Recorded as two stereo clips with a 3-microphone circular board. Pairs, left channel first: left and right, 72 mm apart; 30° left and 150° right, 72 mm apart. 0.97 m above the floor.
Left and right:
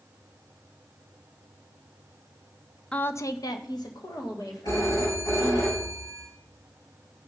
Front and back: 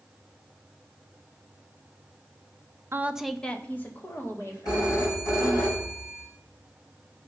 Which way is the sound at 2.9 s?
165° left.